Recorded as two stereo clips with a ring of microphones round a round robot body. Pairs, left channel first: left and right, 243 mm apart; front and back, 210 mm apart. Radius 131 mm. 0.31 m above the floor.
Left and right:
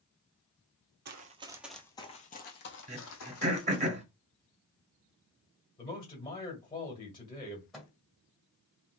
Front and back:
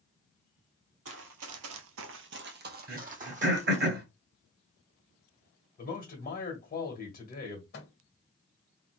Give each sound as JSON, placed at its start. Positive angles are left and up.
{"t": 1.1, "sound": "running footsteps", "azimuth_deg": -140, "distance_m": 0.6}
{"t": 2.9, "sound": "throat clearing", "azimuth_deg": -150, "distance_m": 1.1}
{"t": 5.8, "sound": "a man speaking", "azimuth_deg": 25, "distance_m": 1.6}
{"t": 7.7, "sound": "a microwave", "azimuth_deg": 0, "distance_m": 1.4}